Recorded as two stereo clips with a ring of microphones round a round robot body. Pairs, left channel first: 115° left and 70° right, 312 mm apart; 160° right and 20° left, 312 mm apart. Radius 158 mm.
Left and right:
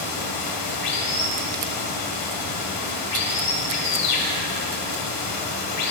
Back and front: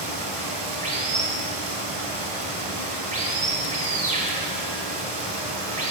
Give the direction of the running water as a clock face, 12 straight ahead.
9 o'clock.